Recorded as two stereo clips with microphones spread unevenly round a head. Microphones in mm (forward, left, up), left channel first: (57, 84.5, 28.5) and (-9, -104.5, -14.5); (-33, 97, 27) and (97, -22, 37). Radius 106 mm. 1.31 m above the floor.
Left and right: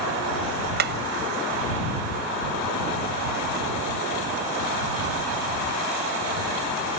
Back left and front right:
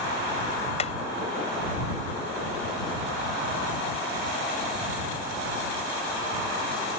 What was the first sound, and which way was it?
Hammering, 160° right.